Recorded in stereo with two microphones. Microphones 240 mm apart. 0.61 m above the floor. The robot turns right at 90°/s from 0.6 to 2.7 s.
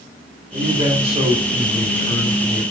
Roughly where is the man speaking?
Right.